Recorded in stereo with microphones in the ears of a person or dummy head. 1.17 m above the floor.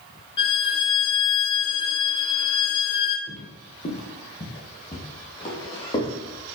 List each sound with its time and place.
0.4 s a violin: 25° left (ahead or behind), 1.0 m
3.3 s footsteps: 40° left (ahead or behind), 1.8 m; by 6.1 s 25° left (ahead or behind), 3.5 m